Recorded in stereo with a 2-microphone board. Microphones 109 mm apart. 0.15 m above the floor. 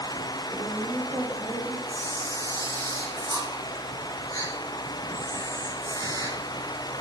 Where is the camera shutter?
35° left (ahead or behind), 8 m.